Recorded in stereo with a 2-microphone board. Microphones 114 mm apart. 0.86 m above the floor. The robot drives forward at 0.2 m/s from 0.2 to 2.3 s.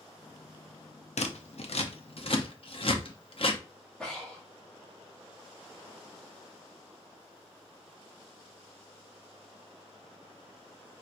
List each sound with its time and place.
1.2 s scissors: 75° left (ahead or behind), 0.5 m; by 3.6 s 55° left (ahead or behind), 0.6 m
4.0 s breathing: 5° left (ahead or behind), 1.5 m